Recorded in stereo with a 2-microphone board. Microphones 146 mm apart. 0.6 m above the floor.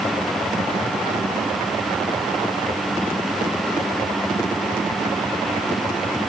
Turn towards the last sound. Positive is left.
No sound to turn to.